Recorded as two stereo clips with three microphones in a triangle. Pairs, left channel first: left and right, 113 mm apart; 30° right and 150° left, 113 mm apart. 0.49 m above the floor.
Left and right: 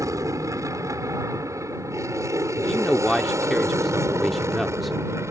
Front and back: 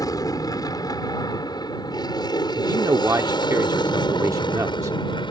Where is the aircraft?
55° right; by 5.3 s 35° right.